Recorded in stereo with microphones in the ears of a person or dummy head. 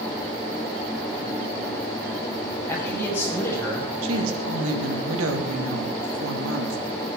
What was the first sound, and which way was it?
A man speaking, 15° left (ahead or behind).